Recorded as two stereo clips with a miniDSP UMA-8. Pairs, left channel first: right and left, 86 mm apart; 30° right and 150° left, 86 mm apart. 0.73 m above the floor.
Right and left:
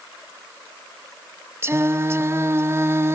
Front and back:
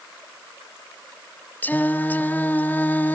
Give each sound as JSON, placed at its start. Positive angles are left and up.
{"t": 1.6, "sound": "singing", "azimuth_deg": 35, "distance_m": 0.8}